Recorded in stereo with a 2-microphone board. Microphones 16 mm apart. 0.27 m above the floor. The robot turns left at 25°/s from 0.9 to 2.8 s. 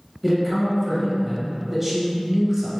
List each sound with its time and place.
0.2 s a man speaking: 10° right (ahead or behind), 1.0 m; by 2.8 s 25° right (ahead or behind), 1.0 m